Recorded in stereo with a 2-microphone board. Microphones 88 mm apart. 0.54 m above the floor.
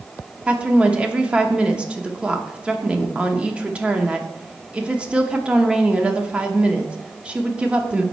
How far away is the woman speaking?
About 0.8 m.